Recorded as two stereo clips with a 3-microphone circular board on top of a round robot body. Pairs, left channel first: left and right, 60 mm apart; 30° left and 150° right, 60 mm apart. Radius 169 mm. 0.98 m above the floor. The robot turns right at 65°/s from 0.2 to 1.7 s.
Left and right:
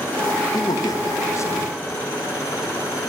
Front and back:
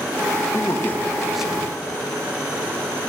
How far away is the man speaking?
About 1.8 m.